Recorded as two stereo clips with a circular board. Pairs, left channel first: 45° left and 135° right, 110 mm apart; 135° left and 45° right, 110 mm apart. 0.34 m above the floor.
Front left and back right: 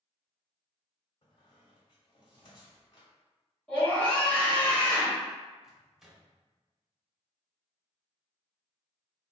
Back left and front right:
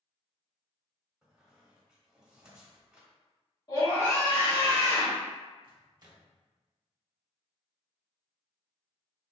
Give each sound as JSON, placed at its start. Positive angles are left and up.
{"t": 1.2, "sound": "a squeak", "azimuth_deg": 35, "distance_m": 1.2}
{"t": 3.7, "sound": "a scream", "azimuth_deg": 120, "distance_m": 1.8}
{"t": 5.6, "sound": "a microwave", "azimuth_deg": -50, "distance_m": 0.8}